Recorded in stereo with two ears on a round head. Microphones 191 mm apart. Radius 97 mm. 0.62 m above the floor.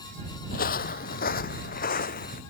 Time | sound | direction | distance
0.5 | footsteps | 45° left (ahead or behind) | ?